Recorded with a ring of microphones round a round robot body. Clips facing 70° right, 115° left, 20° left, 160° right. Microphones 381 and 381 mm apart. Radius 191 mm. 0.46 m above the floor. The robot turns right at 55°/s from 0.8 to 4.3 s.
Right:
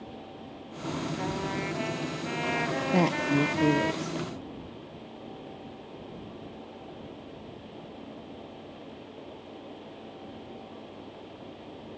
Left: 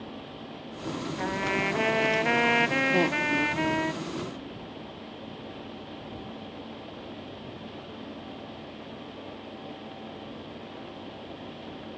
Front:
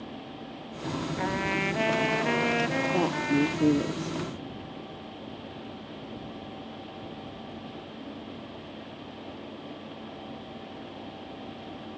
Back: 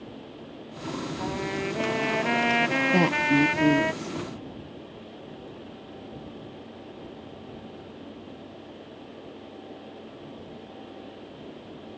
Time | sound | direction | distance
1.2 | a trumpet | 60° left | ?
2.9 | a woman speaking | 120° right | ?